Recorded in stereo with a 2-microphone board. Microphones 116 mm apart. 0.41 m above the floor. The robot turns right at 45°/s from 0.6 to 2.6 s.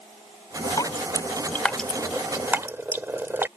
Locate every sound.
0.8 s dripping: 35° left (ahead or behind); by 3.5 s 20° right (ahead or behind)